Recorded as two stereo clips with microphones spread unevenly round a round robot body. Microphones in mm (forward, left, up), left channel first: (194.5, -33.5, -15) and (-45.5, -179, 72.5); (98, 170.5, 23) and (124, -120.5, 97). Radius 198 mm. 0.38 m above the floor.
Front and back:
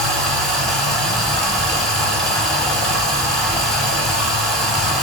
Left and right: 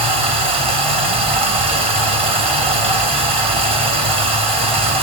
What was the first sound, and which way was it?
Running water, 5° right.